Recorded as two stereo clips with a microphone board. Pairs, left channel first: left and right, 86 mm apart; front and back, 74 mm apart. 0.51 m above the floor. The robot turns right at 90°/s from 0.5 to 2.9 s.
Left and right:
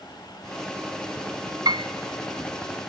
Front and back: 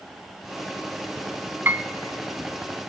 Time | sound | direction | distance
1.6 | a piano | 120° right | 1.0 m